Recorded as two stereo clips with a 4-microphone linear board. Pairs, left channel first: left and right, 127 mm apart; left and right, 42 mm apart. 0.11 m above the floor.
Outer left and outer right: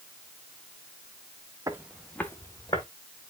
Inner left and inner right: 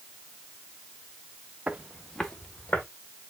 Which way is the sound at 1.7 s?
25° right (ahead or behind).